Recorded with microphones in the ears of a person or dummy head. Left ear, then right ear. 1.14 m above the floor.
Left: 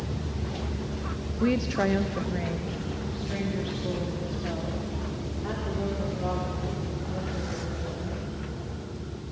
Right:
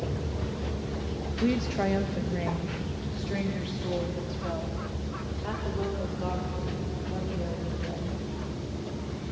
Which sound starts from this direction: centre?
A woman speaking, at 1.4 s.